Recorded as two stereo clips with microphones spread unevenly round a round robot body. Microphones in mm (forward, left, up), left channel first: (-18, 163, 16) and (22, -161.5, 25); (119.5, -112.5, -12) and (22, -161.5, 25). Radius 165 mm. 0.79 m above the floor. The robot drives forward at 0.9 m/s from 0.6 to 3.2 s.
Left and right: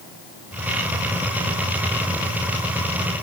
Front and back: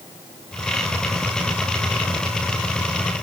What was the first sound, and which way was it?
Only background noise.